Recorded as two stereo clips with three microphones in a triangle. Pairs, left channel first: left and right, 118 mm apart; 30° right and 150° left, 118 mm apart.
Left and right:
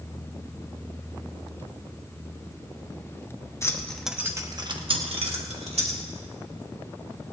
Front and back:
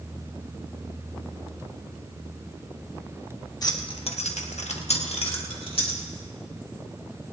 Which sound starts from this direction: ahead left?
Keys jangling, at 3.6 s.